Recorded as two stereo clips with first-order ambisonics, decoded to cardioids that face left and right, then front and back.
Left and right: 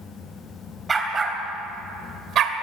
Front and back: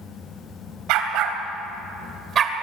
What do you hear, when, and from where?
0.9 s a dog barking: 165° right, 3 m; by 2.6 s 120° right, 1.9 m